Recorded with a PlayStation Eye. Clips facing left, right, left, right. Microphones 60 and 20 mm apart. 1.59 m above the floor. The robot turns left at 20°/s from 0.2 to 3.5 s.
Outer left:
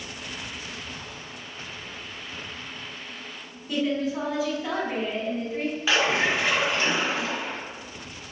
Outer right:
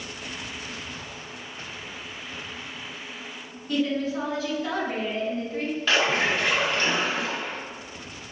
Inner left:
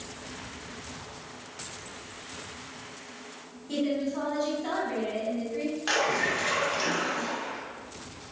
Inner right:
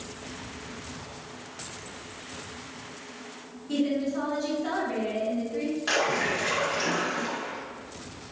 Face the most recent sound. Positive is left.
turn(degrees=10)  # may be behind; listen again after turning